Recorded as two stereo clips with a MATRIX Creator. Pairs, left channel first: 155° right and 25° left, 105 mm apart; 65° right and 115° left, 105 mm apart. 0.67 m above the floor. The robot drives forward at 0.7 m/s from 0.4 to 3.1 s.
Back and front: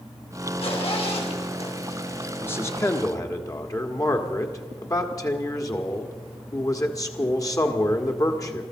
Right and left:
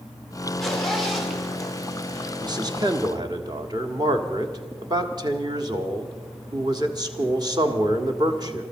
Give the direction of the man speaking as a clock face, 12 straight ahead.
7 o'clock.